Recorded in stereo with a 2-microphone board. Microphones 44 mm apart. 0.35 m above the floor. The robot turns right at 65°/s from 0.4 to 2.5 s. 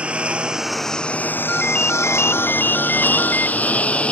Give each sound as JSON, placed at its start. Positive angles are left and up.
{"t": 0.0, "sound": "a lawn mower", "side_deg": -30}
{"t": 1.5, "sound": "a ringtone", "azimuth_deg": 15}